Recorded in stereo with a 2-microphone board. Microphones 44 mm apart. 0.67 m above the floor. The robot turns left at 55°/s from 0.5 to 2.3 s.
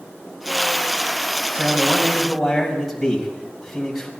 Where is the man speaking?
140° right, 4.5 m; by 4.1 s straight behind, 4.5 m.